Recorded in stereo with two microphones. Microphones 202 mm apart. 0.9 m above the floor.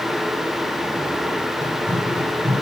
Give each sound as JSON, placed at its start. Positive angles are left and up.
{"t": 1.6, "sound": "running footsteps", "side_deg": -40, "distance_m": 2.5}